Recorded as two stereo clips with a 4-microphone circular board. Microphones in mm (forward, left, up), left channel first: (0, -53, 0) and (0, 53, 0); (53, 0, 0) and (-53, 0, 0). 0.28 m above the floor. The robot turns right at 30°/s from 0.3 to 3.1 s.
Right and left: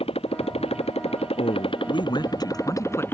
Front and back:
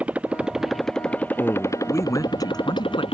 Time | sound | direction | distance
0.0 | a motorcycle | 105° right | ?
1.4 | a man speaking | 80° right | ?